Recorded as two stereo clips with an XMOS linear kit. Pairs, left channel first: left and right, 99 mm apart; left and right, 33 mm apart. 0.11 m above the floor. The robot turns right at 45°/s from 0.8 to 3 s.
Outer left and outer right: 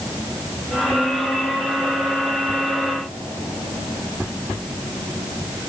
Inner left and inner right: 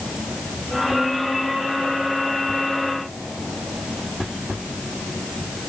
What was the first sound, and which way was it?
Only background noise.